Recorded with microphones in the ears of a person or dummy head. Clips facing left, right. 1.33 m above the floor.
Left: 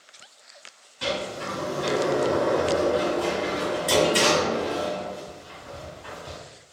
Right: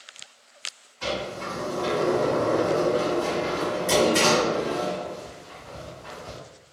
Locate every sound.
1.0 s a sliding door: 35° left (ahead or behind), 1.4 m